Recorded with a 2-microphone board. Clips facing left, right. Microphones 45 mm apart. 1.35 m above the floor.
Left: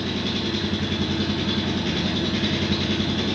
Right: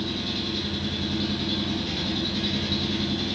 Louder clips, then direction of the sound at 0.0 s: Left 4 dB; 65° left (ahead or behind).